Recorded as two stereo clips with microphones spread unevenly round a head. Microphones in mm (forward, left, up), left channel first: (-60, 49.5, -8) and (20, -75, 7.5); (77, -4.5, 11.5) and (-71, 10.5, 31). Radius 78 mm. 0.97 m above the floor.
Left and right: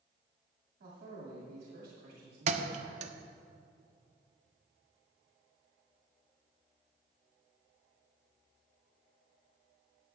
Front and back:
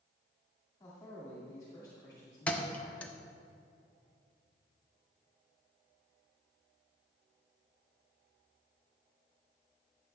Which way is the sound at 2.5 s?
90° right.